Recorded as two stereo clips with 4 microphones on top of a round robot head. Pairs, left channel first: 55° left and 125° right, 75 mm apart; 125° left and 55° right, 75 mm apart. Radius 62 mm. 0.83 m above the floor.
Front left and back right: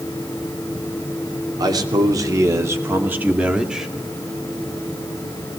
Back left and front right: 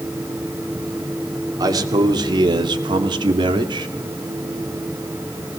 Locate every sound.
1.6 s a man speaking: 95° right, 2.5 m; by 3.9 s 40° right, 2.5 m